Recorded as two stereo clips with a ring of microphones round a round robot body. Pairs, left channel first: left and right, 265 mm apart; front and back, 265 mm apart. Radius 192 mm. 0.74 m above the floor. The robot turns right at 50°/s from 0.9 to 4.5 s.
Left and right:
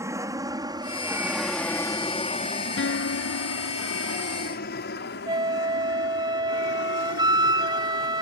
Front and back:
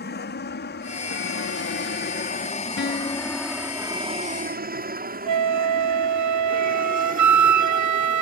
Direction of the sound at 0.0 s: 20° right.